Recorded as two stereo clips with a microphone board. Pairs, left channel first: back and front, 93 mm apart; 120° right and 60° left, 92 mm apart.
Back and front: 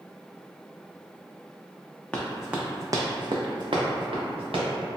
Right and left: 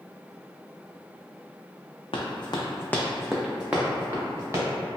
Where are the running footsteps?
100° right, 0.7 m; by 4.7 s straight ahead, 1.4 m.